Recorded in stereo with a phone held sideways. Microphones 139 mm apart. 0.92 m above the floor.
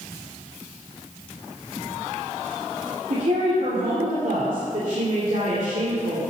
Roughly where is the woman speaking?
Right.